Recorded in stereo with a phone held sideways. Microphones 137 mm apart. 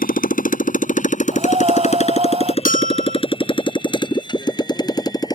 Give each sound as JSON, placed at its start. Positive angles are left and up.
{"t": 0.0, "sound": "a motorcycle", "side_deg": 80}
{"t": 1.3, "sound": "breathing", "side_deg": -45}
{"t": 2.6, "sound": "a bell", "side_deg": 65}